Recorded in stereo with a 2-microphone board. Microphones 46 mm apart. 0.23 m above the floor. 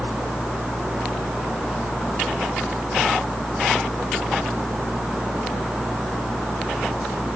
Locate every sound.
Only background noise.